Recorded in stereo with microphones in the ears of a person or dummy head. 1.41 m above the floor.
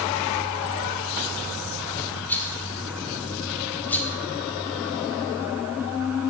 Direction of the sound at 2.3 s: 15° left (ahead or behind).